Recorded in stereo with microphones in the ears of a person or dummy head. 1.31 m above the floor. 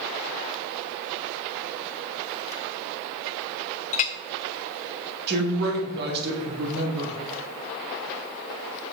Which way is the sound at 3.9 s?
35° left (ahead or behind).